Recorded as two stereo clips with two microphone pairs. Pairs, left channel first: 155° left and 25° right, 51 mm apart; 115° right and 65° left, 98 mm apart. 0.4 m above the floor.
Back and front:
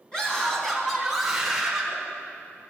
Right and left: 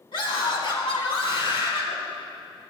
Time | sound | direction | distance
0.1 | a scream | 130° right | 3 m